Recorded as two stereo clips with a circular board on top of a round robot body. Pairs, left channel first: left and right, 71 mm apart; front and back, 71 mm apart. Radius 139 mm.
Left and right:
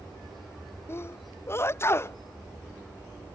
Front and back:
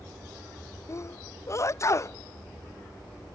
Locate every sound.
0.9 s a sneeze: 40° left